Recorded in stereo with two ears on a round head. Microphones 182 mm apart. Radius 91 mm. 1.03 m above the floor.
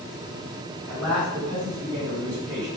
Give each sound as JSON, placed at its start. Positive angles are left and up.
{"t": 0.9, "sound": "a man speaking", "side_deg": -15, "distance_m": 4.5}